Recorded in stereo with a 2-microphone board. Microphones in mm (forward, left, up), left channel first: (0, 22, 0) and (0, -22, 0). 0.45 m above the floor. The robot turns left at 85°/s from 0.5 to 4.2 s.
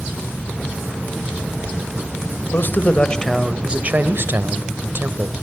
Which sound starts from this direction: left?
A man speaking, at 2.5 s.